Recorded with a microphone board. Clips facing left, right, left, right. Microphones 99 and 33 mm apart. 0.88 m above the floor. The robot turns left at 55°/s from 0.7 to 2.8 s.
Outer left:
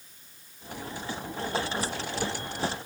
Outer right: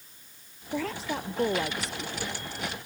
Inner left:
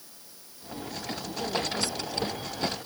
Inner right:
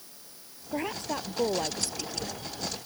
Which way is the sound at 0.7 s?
95° right.